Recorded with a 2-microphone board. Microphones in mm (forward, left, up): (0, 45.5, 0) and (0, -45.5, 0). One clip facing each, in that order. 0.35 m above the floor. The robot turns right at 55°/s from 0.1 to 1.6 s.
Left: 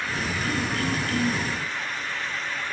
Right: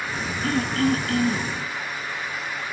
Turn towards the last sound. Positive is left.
turn(degrees=-30)